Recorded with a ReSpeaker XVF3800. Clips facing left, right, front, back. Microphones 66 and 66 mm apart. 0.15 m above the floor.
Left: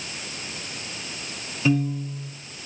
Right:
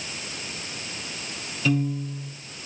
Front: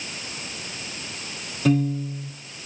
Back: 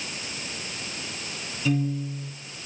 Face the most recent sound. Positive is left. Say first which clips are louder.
# left 2 dB, front 5 dB
turn(degrees=25)